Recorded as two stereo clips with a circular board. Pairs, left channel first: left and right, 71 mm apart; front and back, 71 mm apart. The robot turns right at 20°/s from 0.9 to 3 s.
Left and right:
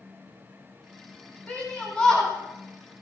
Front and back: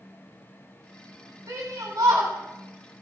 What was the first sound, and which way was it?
A shout, 155° left.